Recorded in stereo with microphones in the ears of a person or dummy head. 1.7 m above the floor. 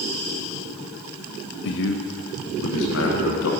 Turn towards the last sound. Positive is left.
turn(degrees=65)  # may be behind; listen again after turning